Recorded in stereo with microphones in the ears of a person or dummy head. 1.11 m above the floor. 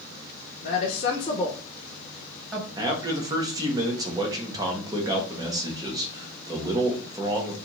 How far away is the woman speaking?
About 0.7 m.